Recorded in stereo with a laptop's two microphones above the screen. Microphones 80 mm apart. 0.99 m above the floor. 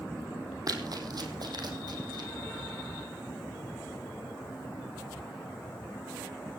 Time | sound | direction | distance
0.7 | running footsteps | 50° right (ahead or behind) | 2.5 m